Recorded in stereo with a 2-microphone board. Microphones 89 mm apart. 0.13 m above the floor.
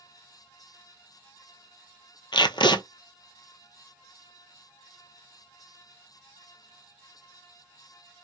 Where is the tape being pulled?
75° left (ahead or behind), 0.6 m.